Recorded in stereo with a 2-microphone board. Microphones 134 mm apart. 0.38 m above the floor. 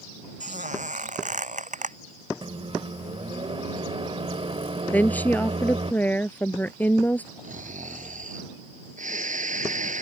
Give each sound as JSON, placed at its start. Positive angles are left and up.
{"t": 0.4, "sound": "a squeak", "side_deg": -65}
{"t": 2.4, "sound": "a microwave", "side_deg": -45}
{"t": 4.9, "sound": "a woman speaking", "side_deg": 10}
{"t": 7.4, "sound": "snoring", "side_deg": -75}